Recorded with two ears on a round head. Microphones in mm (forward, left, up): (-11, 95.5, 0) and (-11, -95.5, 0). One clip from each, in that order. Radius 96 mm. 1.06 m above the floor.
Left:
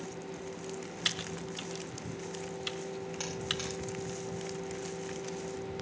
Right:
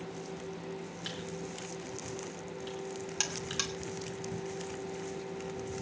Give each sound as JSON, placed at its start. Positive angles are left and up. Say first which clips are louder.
{"t": 1.1, "sound": "typing on a keyboard", "louder": "left 8 dB", "side_deg": 65, "distance_m": 1.5}
{"t": 3.2, "sound": "a buzzer", "louder": "right 2 dB", "side_deg": -55, "distance_m": 2.5}